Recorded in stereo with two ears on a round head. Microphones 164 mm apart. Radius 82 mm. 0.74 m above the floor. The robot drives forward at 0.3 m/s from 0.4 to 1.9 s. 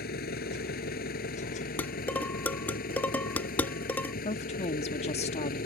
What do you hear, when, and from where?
0.0 s an engine running: 55° left (ahead or behind); by 5.7 s 50° left (ahead or behind)
1.8 s dishes clattering: 10° left (ahead or behind)
4.2 s a woman speaking: 35° left (ahead or behind)